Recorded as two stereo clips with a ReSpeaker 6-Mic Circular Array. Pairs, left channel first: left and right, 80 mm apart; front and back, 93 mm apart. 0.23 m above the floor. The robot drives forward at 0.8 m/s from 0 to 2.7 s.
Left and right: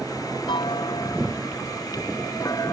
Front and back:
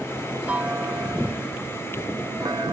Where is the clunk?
105° left; by 2.7 s 140° left.